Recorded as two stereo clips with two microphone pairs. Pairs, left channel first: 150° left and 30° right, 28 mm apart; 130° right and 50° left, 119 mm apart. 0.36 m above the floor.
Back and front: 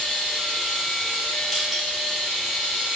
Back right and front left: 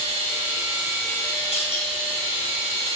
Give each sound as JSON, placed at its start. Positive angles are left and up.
{"t": 0.0, "sound": "running water", "azimuth_deg": 90, "distance_m": 1.0}
{"t": 1.5, "sound": "crushing", "azimuth_deg": -105, "distance_m": 1.6}